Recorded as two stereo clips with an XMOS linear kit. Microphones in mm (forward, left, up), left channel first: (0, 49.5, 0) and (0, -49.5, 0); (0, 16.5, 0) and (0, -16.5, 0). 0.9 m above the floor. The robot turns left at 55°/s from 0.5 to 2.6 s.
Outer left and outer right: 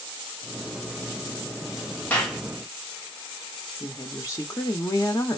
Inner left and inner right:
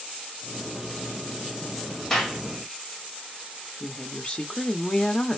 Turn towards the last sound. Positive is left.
turn(degrees=30)  # may be behind; listen again after turning